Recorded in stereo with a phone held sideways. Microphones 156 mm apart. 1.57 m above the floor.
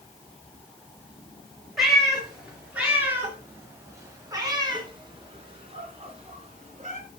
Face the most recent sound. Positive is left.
turn(degrees=-45)  # may be behind; listen again after turning